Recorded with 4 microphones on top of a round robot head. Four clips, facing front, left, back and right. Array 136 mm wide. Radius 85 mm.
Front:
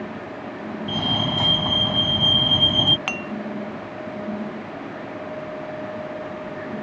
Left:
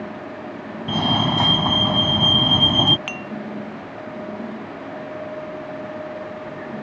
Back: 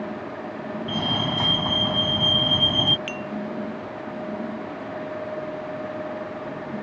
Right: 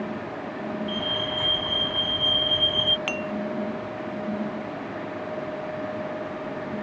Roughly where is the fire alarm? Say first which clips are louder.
Left 8 dB, front 1 dB; left.